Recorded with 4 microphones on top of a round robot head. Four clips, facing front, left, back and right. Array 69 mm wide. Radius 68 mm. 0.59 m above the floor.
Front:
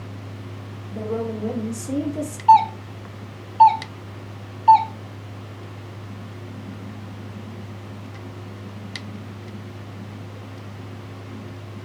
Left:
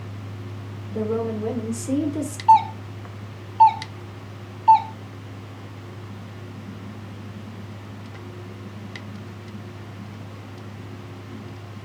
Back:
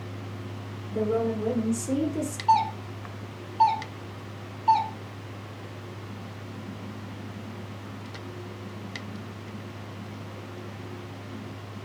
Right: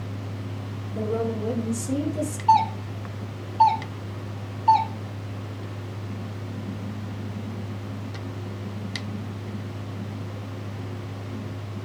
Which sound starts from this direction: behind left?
A woman speaking, at 0.9 s.